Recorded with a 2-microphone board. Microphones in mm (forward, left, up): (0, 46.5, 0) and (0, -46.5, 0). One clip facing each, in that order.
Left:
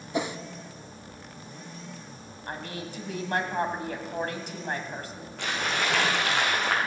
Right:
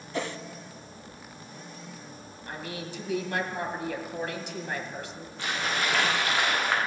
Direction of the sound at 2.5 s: 50° left (ahead or behind).